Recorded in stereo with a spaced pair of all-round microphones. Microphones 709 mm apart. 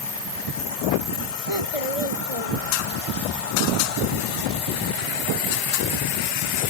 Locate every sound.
1.5 s a child speaking: 45° left (ahead or behind); by 3.1 s 50° left (ahead or behind)